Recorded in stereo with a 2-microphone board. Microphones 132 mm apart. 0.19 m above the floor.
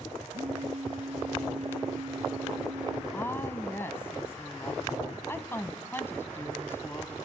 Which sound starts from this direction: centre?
A woman speaking, at 3.1 s.